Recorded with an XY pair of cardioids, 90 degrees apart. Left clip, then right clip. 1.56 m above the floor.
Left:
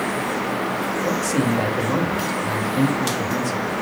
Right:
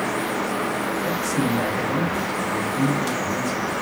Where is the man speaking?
55° left, 2.5 m.